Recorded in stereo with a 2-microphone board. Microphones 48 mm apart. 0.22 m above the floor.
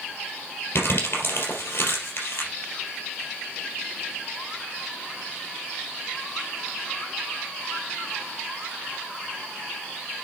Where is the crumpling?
55° left (ahead or behind), 3.5 m.